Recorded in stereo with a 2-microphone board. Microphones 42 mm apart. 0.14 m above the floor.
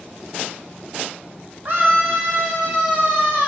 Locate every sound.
1.6 s a scream: 45° right (ahead or behind), 1.7 m; by 3.5 s 70° right (ahead or behind), 3 m